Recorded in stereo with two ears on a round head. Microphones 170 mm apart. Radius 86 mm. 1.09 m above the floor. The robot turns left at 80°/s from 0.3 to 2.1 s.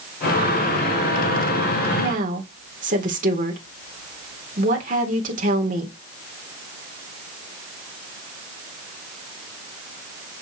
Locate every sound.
2.0 s a woman speaking: 55° right (ahead or behind), 4 m; by 6.0 s 45° right (ahead or behind), 4 m